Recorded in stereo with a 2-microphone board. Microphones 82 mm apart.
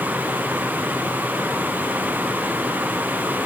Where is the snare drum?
No snare drum in this recording.